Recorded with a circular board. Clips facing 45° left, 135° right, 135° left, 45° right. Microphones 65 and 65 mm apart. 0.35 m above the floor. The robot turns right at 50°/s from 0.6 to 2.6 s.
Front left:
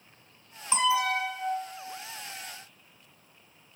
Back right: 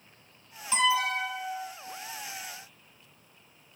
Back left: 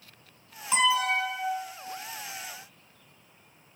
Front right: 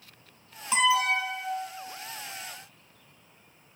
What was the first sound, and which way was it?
An alarm, 50° left.